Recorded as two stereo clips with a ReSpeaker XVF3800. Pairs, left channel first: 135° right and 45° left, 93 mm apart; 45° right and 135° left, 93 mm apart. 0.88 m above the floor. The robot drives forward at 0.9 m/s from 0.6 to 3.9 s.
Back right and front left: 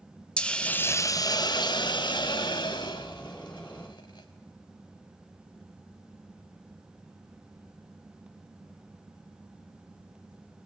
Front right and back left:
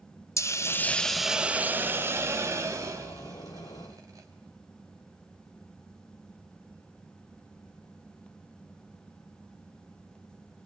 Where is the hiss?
65° right, 0.7 m; by 4.3 s 175° right, 3 m.